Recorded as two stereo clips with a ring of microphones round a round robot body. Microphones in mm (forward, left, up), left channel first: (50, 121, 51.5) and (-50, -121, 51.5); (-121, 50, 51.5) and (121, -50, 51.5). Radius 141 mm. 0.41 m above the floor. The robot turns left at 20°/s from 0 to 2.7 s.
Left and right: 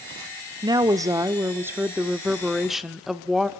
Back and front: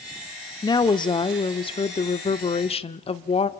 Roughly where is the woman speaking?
Behind right.